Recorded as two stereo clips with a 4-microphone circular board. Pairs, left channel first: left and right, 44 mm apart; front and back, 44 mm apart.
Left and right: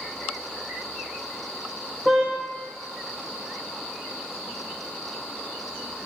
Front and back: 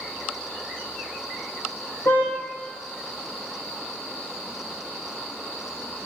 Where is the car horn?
Straight ahead, 6 m.